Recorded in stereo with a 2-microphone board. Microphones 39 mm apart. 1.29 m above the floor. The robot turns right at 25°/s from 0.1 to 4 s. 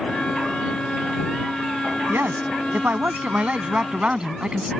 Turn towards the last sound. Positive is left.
turn(degrees=-25)